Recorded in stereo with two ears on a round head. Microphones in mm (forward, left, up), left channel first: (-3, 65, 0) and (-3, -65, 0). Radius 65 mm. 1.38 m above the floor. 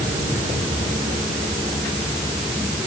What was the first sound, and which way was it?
Only background noise.